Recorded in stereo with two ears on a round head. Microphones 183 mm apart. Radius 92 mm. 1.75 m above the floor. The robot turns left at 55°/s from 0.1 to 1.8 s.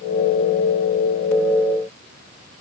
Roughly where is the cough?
I don't hear a cough.